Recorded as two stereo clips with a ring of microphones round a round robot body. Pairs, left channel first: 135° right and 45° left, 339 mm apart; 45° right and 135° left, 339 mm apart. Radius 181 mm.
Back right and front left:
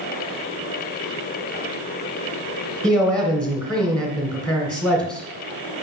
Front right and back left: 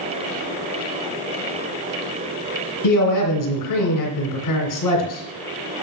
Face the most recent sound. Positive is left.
turn(degrees=-50)